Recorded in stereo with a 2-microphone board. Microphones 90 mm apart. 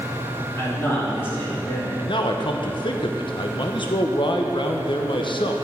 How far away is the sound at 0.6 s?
About 3 m.